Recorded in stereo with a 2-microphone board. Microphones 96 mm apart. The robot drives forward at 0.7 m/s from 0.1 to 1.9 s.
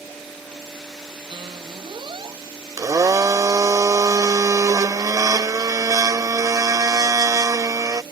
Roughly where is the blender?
Right.